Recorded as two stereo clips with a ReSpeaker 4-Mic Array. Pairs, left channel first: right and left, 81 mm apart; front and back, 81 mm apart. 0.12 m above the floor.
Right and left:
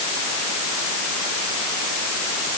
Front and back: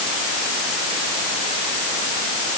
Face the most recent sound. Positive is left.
No sound to turn to.